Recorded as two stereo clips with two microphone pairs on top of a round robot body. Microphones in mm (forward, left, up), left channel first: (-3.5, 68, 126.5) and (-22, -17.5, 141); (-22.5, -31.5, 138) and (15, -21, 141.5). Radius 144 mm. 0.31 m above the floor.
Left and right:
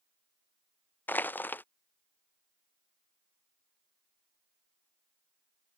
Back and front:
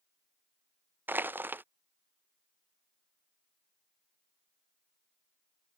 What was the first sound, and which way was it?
Crushing, 25° left.